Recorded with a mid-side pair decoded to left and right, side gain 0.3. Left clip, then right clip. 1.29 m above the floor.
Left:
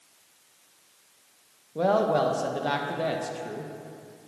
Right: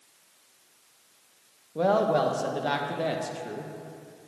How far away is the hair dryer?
No hair dryer in this recording.